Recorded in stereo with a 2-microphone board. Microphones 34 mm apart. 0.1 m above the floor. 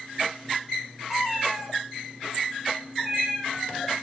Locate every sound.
1.1 s a cat meowing: 10° right (ahead or behind), 4.5 m